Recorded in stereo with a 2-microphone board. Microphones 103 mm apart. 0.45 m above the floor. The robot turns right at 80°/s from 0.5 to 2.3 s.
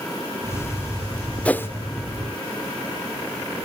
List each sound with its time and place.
1.4 s a whoosh: 10° left (ahead or behind), 0.6 m; by 1.7 s 25° left (ahead or behind), 0.6 m